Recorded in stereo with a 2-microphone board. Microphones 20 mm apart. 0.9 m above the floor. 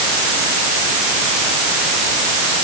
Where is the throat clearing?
No throat clearing in this recording.